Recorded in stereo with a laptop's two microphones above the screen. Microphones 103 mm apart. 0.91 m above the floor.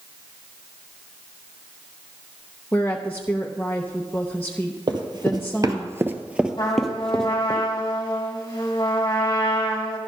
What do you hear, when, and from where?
2.7 s a woman speaking: 20° left (ahead or behind), 0.8 m
4.9 s running footsteps: 50° right (ahead or behind), 1.4 m; by 7.6 s 15° left (ahead or behind), 2 m
6.6 s a trumpet: 40° left (ahead or behind), 1.8 m